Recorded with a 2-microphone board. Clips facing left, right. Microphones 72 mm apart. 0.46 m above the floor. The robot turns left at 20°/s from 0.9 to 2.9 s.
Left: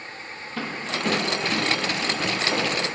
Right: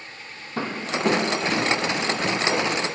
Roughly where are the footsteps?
Right.